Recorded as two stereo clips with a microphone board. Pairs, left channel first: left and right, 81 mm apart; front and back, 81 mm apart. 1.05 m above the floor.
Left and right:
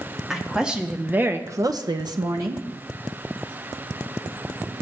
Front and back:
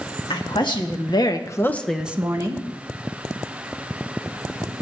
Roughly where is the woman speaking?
Ahead.